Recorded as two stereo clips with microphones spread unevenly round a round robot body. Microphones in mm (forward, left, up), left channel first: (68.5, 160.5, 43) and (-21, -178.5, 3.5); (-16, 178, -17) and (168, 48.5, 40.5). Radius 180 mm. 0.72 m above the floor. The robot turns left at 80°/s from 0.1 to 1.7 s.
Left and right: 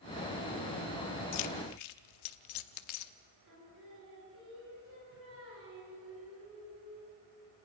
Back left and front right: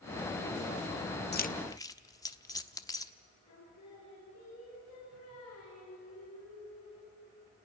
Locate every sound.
1.3 s keys jangling: 105° left, 1.0 m; by 3.1 s 75° left, 1.0 m
3.5 s singing: 165° right, 8 m